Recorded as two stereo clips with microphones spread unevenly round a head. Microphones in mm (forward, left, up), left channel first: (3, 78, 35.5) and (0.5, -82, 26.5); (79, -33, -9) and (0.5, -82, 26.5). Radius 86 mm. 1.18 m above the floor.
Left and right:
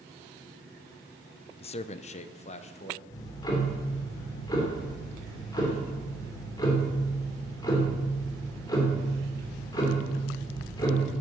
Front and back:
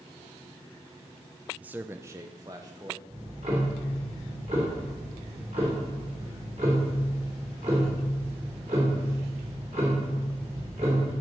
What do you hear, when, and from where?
1.6 s a man speaking: 110° left, 0.6 m; by 3.0 s 140° left, 1.7 m
3.1 s ticking: 155° left, 3 m